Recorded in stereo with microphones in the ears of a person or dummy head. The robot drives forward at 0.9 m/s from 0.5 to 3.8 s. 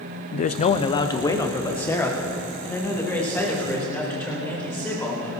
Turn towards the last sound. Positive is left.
turn(degrees=5)  # may be behind; listen again after turning